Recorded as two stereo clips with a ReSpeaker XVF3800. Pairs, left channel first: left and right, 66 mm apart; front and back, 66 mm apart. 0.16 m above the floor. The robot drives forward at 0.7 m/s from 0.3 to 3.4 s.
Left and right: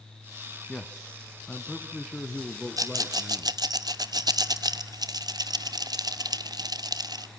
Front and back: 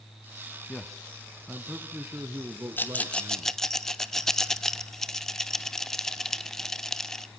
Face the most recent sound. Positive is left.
turn(degrees=-85)